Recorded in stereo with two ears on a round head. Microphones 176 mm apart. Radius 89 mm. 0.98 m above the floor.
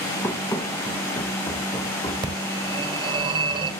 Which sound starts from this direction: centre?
Running footsteps, at 0.2 s.